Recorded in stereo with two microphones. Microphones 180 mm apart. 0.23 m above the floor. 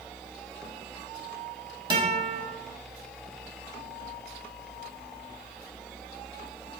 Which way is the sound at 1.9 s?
25° right (ahead or behind).